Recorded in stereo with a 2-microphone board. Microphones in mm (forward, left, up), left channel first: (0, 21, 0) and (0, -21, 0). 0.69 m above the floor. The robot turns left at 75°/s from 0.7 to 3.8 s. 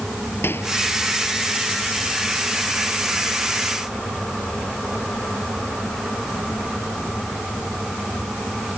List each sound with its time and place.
0.4 s a microwave: 65° left (ahead or behind)